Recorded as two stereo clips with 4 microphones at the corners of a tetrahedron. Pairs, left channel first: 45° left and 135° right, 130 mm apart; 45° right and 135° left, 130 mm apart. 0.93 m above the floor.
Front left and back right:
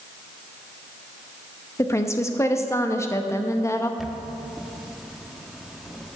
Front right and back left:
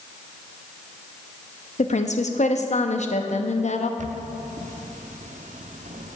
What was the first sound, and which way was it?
A woman speaking, 25° right.